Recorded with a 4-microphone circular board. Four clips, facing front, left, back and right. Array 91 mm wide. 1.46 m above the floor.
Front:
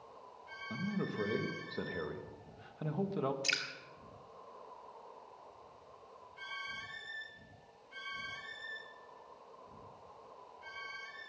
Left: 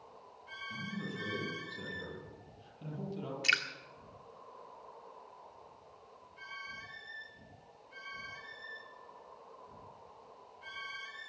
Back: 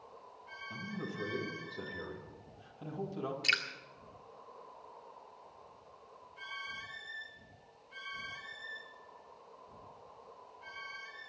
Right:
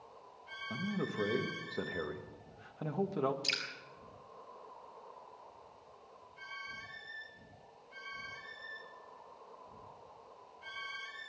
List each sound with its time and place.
0.7 s a man speaking: 60° right, 1.9 m
3.4 s dripping: 110° left, 1.6 m